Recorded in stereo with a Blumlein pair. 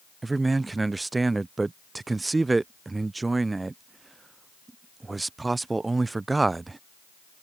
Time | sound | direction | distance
0.2 | a man speaking | 10° right | ?